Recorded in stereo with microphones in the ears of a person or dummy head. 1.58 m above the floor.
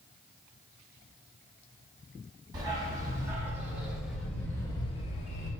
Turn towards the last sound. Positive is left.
turn(degrees=45)  # may be behind; listen again after turning